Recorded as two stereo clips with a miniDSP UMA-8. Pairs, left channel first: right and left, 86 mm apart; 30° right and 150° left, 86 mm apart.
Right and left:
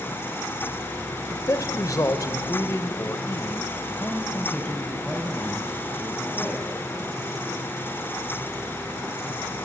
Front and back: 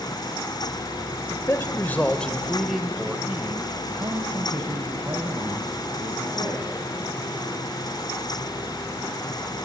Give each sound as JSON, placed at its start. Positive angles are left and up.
{"t": 1.3, "sound": "a man speaking", "azimuth_deg": -65, "distance_m": 1.2}